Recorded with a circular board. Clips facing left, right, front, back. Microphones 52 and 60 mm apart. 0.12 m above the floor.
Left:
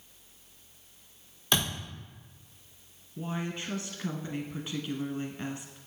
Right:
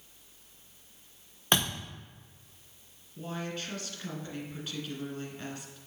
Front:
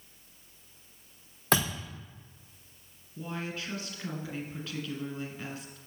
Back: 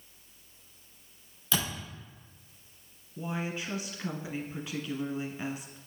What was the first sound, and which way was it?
A thud, 40° right.